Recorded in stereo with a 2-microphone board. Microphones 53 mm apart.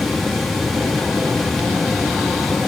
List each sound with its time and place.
Only background noise.